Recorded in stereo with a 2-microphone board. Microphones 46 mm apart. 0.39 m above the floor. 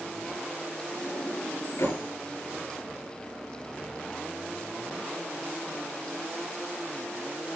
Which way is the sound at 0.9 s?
80° left.